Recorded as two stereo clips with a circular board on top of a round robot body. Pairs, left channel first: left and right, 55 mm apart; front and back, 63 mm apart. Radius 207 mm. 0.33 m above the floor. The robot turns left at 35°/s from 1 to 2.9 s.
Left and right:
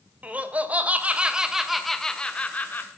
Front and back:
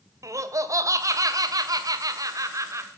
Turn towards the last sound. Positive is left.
turn(degrees=140)